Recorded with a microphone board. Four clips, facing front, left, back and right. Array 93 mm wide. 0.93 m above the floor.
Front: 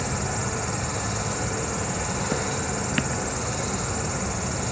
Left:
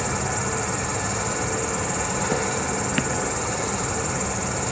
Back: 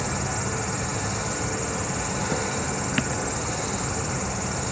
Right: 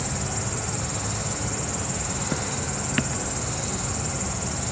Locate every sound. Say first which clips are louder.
0.0 s an insect: left 5 dB, even; 95° left, 2.0 m